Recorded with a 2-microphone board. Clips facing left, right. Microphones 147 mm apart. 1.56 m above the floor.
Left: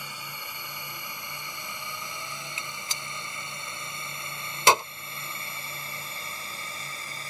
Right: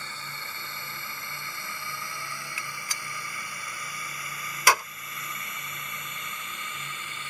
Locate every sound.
0.0 s a drone: 10° left (ahead or behind); by 7.3 s 35° left (ahead or behind)
2.6 s a gunshot: 25° left (ahead or behind)